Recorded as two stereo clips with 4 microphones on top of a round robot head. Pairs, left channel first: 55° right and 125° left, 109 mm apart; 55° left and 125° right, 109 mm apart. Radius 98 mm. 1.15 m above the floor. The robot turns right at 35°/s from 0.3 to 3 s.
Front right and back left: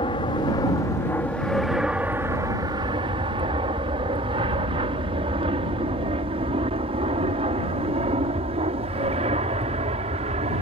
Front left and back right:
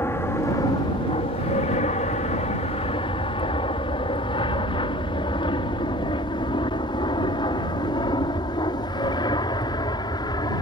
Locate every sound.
0.0 s an aircraft: 15° right; by 10.6 s 105° left